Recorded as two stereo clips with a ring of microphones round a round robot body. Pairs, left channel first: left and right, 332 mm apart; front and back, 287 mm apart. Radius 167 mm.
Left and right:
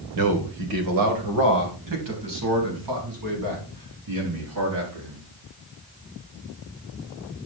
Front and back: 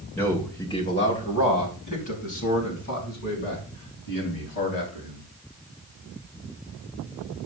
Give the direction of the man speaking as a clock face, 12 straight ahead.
3 o'clock.